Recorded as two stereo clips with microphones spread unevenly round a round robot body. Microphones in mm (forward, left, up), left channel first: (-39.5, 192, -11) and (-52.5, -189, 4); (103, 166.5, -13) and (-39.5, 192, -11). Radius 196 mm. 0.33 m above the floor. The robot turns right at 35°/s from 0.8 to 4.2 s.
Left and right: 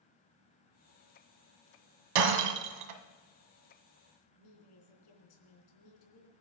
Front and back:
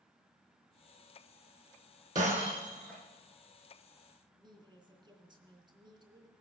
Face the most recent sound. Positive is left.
turn(degrees=110)